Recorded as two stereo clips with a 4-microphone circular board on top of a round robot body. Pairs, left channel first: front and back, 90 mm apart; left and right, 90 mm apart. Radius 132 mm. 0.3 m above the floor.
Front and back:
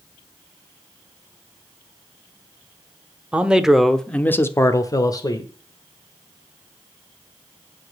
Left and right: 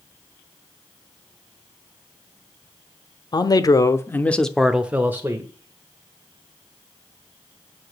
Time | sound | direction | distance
3.3 | a man speaking | 110° left | 1.4 m